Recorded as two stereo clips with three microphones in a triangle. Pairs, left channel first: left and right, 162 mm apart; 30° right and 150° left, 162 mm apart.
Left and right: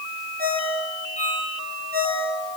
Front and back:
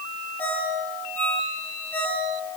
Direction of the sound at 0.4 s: 110° right.